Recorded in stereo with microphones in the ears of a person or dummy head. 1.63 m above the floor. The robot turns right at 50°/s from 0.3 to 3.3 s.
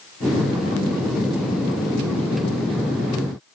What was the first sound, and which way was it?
Only background noise.